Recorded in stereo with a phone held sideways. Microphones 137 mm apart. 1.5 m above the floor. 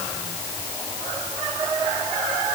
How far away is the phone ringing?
No phone ringing in this recording.